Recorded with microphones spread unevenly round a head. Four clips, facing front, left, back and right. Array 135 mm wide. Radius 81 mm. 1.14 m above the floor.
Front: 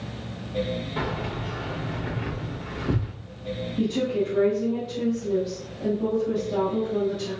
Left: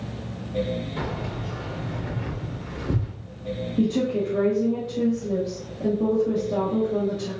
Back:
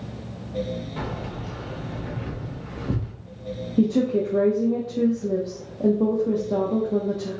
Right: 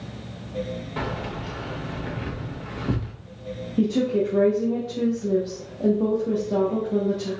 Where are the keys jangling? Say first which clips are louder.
Right 1 dB, front 2 dB; 55° right, 1.2 m.